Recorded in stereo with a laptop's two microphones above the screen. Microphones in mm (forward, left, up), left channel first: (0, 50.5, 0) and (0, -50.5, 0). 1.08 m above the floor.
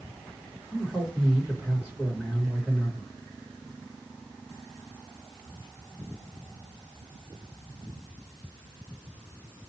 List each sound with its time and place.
0.7 s a man speaking: 10° right (ahead or behind), 1.5 m